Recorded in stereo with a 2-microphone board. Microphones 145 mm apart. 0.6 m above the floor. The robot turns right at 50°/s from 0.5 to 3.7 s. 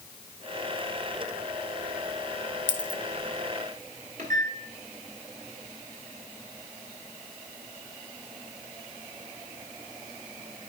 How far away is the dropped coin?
About 1.4 m.